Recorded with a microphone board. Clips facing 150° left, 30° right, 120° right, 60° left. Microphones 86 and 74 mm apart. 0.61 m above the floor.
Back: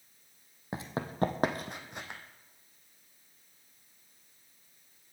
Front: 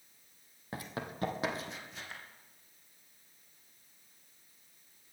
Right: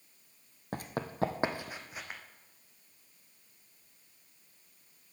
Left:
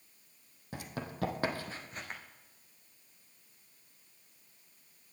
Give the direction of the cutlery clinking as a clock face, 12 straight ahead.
I don't hear cutlery clinking.